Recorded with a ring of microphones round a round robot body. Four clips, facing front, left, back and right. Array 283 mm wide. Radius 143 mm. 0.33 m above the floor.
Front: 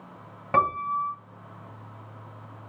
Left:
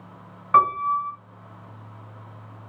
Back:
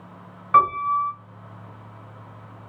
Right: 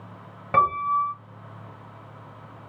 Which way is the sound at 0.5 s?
40° right.